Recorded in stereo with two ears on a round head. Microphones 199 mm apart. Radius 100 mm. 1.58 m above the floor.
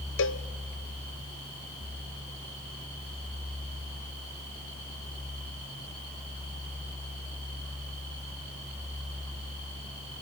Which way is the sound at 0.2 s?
60° left (ahead or behind).